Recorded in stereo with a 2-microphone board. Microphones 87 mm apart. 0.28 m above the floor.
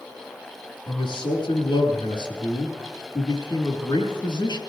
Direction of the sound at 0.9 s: 65° left (ahead or behind).